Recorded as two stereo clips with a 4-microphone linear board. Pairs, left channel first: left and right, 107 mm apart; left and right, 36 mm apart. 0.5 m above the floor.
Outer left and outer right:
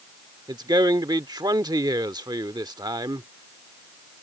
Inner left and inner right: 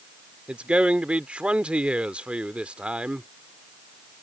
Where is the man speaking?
40° right (ahead or behind).